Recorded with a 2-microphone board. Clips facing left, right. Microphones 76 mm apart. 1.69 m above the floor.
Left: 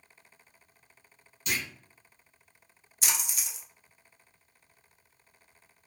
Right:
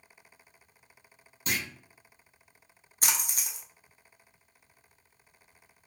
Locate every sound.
1.5 s a clunk: 40° right (ahead or behind), 0.7 m
3.0 s a splash: 45° right (ahead or behind), 0.6 m